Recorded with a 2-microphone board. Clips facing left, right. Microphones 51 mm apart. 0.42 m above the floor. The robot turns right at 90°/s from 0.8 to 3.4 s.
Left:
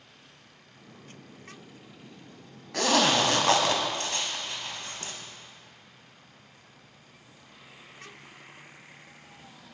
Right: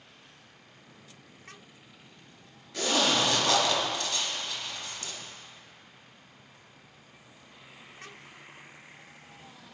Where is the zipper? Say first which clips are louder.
Left 3 dB; 80° left, 0.7 m; by 5.1 s 40° left (ahead or behind), 0.7 m.